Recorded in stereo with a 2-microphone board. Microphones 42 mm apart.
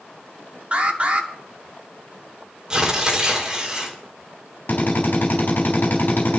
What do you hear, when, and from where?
0.7 s an alarm: 35° right (ahead or behind), 1.8 m
2.7 s tearing paper: 20° right (ahead or behind), 3 m
4.7 s a drill: 50° left (ahead or behind), 4 m